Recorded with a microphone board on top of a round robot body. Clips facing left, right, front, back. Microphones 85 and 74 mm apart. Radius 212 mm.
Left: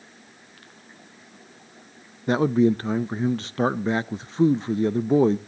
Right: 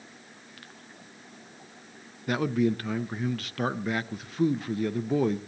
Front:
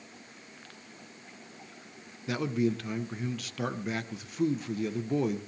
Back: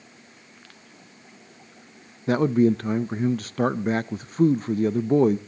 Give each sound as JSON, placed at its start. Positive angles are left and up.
{"t": 2.3, "sound": "a man speaking", "azimuth_deg": 145, "distance_m": 0.6}